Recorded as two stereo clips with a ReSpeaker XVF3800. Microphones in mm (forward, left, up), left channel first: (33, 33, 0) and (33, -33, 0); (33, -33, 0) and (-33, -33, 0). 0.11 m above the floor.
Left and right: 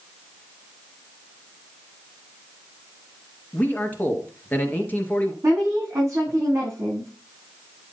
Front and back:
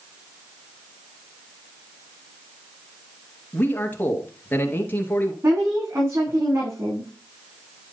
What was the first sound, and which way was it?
A man speaking, 40° left.